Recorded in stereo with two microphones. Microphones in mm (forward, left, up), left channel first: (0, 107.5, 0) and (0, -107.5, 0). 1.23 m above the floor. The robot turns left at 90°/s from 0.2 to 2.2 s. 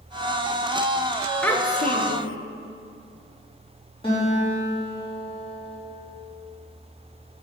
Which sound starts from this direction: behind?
A child speaking, at 1.4 s.